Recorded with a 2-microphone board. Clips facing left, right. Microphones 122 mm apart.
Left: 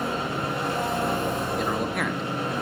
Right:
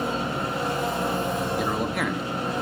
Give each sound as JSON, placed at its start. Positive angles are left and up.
{"t": 0.0, "sound": "an engine running", "side_deg": 65, "distance_m": 5.0}
{"t": 1.6, "sound": "a man speaking", "side_deg": -5, "distance_m": 0.9}